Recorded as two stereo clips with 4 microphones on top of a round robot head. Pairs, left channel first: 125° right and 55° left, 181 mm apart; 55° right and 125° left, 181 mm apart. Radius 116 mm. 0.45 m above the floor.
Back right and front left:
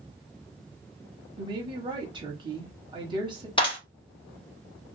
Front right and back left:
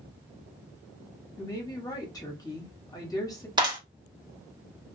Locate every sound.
1.4 s a woman speaking: 5° left, 1.0 m
3.6 s a clap: straight behind, 1.4 m